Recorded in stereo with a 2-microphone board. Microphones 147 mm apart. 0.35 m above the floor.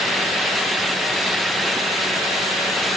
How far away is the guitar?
No guitar in this recording.